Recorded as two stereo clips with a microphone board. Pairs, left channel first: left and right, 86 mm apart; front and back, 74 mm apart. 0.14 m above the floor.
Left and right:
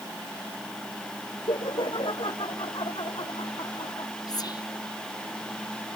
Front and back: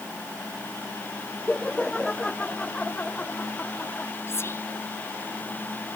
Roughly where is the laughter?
Left.